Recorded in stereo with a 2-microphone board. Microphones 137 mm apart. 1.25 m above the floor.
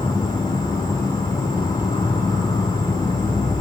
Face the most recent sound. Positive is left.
turn(degrees=30)  # may be behind; listen again after turning